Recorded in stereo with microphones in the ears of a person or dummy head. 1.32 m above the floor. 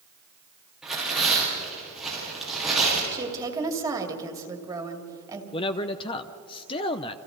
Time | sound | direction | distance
0.8 | tearing paper | centre (ahead or behind) | 7.5 m
3.1 | a woman speaking | 20° right (ahead or behind) | 2 m
5.5 | a man speaking | 25° left (ahead or behind) | 0.7 m